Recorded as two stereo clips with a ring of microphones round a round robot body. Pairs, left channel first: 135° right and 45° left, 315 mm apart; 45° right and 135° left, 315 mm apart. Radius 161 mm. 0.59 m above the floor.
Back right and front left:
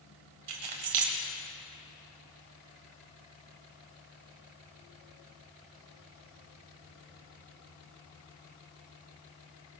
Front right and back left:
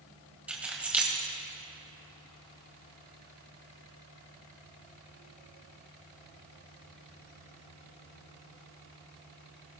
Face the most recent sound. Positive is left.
turn(degrees=50)